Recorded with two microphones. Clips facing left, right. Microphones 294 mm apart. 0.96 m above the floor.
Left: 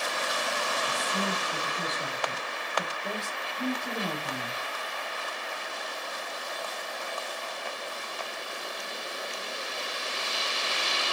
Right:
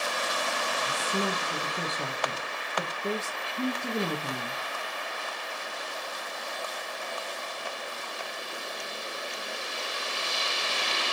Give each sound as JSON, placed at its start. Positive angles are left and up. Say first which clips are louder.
{"t": 0.9, "sound": "a woman speaking", "louder": "right 4 dB", "side_deg": -55, "distance_m": 0.7}